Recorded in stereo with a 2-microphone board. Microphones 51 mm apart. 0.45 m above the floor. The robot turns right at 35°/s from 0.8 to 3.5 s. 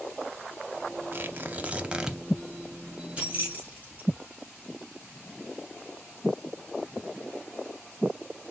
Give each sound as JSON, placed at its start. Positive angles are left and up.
{"t": 1.1, "sound": "tearing paper", "azimuth_deg": -45, "distance_m": 0.6}
{"t": 3.2, "sound": "keys jangling", "side_deg": -25, "distance_m": 1.9}